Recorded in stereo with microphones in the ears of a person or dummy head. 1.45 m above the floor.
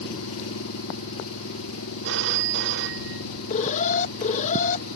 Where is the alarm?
40° left (ahead or behind).